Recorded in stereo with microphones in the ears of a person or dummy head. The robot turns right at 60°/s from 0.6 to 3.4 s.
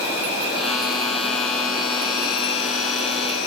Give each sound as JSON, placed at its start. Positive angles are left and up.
{"t": 0.0, "sound": "an insect", "azimuth_deg": -40, "distance_m": 1.1}